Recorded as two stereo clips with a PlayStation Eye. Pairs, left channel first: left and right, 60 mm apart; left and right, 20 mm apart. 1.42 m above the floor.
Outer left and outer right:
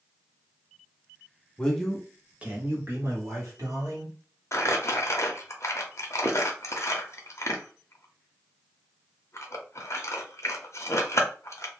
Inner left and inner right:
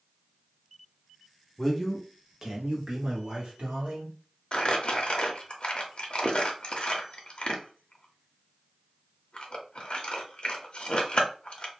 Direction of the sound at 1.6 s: 15° left (ahead or behind).